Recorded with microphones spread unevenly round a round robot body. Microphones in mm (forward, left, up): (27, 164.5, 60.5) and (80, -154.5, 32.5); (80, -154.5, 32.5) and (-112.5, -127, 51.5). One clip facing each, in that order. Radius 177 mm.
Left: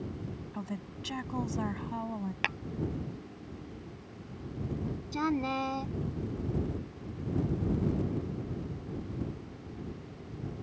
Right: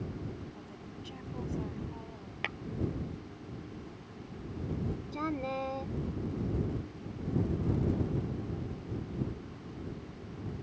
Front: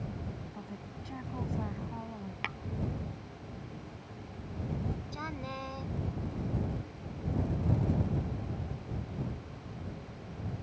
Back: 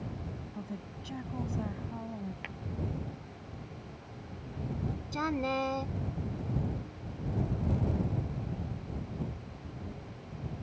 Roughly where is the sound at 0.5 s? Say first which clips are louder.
Left 7 dB, back 3 dB; left.